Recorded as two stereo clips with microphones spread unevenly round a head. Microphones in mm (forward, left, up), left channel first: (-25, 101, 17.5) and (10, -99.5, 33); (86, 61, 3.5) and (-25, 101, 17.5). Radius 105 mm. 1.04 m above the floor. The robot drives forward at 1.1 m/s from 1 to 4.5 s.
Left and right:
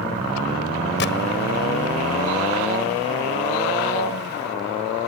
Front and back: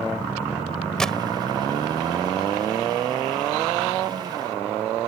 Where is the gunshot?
65° left.